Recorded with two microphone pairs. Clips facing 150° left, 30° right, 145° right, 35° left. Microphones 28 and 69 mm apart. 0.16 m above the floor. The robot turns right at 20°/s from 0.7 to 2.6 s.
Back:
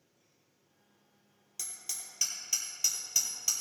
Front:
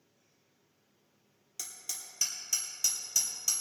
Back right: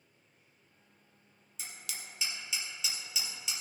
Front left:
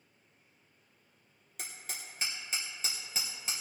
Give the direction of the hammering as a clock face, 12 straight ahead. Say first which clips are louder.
Even, front left 1 dB; 10 o'clock.